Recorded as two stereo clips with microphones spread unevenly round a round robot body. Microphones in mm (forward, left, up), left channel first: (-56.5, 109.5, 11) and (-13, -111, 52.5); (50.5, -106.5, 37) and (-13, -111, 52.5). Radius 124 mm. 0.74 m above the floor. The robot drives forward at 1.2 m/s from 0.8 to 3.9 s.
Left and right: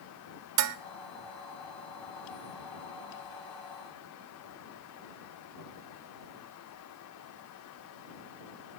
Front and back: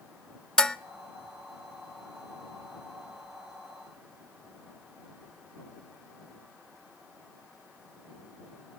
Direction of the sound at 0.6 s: 75° right.